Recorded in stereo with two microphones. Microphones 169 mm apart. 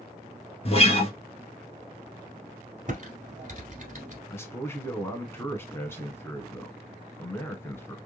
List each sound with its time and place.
0.7 s a guitar: 35° left (ahead or behind), 1.2 m
2.9 s typing on a keyboard: 45° right (ahead or behind), 1.5 m
4.3 s a man speaking: 15° left (ahead or behind), 1.2 m